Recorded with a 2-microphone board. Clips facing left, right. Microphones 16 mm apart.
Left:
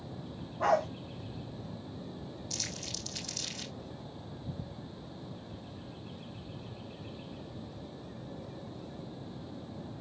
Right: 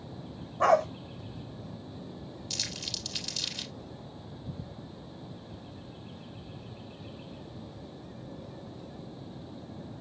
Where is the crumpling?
45° right (ahead or behind), 4 m.